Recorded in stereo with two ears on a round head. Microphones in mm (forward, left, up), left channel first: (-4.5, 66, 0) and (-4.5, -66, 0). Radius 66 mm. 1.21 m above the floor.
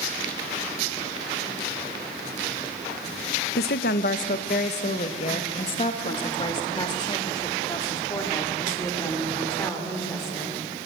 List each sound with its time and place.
3.6 s a woman speaking: 75° left (ahead or behind), 1.0 m; by 10.6 s 20° left (ahead or behind), 4.5 m